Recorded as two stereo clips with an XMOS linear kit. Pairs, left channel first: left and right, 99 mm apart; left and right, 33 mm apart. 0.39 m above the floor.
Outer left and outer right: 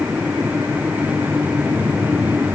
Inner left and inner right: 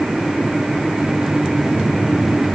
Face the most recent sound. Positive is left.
No sound to turn to.